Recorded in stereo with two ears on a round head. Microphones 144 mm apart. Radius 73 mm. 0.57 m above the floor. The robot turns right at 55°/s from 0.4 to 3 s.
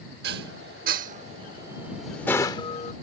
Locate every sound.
0.2 s dishes clattering: 70° right (ahead or behind); by 2.9 s 45° left (ahead or behind)